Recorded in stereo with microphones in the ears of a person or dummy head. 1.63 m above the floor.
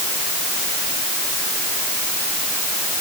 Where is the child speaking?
No child speaking in this recording.